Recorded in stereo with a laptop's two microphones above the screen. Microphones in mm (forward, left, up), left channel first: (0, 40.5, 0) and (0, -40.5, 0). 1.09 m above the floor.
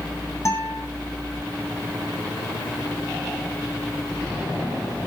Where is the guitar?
40° left (ahead or behind), 7 m.